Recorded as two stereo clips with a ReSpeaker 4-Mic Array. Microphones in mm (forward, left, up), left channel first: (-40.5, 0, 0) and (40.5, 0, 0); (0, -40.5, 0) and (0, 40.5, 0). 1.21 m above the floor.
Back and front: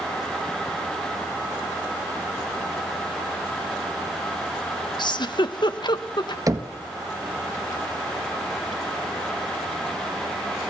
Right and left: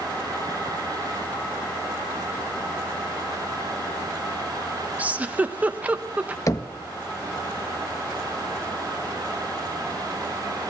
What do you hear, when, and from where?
5.0 s a giggle: 160° left, 1.0 m
6.5 s knocking: 40° right, 1.5 m